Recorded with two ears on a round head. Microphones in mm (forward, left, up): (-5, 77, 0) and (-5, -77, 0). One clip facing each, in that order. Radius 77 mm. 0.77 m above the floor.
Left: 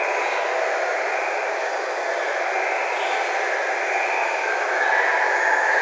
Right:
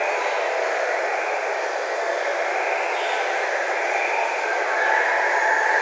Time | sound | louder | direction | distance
0.0 | running water | even | 30° right (ahead or behind) | 1.8 m